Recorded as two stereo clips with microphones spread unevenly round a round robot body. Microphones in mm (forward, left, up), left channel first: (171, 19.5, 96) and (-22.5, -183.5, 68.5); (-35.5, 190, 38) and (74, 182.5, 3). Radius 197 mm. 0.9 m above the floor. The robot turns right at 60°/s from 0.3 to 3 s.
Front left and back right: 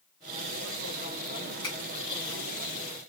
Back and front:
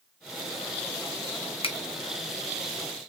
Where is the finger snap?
125° left, 0.7 m; by 1.8 s 130° left, 0.7 m.